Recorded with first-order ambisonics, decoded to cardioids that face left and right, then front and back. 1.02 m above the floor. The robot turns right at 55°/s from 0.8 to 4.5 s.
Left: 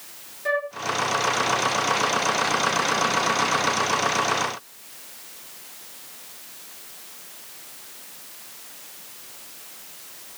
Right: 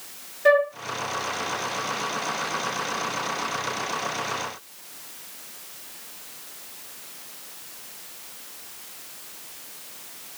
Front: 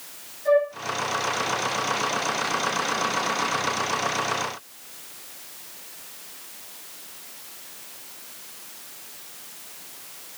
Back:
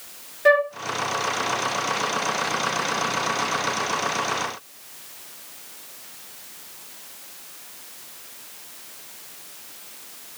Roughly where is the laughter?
No laughter in this recording.